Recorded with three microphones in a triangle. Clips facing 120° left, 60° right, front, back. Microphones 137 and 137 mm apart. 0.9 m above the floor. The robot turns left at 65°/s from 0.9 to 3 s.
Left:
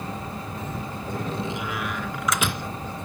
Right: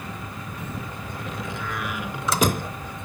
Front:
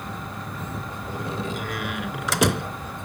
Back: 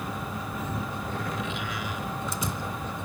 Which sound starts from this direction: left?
A door slam, at 1.1 s.